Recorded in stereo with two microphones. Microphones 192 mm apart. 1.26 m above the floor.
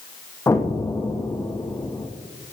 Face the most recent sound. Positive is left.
turn(degrees=15)  # may be behind; listen again after turning